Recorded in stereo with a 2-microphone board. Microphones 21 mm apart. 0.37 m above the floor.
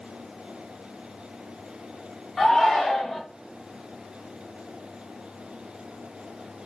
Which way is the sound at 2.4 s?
10° left (ahead or behind).